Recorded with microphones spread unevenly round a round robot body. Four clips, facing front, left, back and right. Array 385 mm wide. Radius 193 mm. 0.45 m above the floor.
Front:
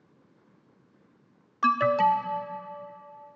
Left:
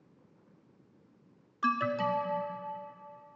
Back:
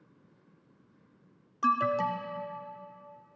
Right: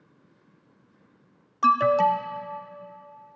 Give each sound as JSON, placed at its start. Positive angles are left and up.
{"t": 1.6, "sound": "an alarm", "azimuth_deg": -90, "distance_m": 0.6}